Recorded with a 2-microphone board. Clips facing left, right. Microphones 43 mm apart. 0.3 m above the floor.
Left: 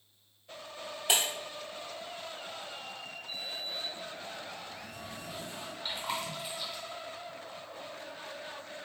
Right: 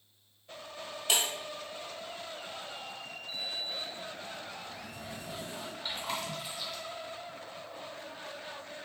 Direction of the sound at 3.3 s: 20° right (ahead or behind).